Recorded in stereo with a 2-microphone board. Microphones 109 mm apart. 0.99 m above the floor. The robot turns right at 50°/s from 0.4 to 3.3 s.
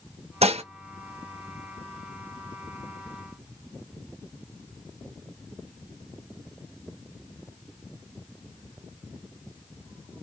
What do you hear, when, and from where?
0.4 s dishes clattering: 75° right (ahead or behind), 0.7 m; by 0.6 s 85° right, 0.7 m